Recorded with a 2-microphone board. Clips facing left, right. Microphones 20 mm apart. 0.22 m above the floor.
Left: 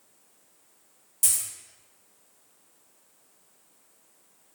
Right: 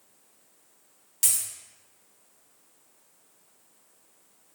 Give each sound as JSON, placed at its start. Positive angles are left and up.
{"t": 1.2, "sound": "a dropped coin", "side_deg": -45, "distance_m": 0.7}